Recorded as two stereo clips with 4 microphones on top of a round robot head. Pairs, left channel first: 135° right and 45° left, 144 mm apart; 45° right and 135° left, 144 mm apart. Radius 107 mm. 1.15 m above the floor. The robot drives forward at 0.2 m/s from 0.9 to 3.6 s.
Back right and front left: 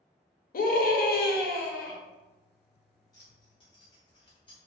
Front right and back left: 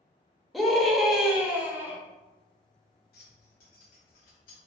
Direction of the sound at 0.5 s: 135° right.